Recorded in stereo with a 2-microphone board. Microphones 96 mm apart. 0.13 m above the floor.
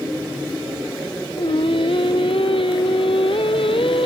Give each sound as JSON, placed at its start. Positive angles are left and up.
{"t": 1.4, "sound": "singing", "side_deg": 70}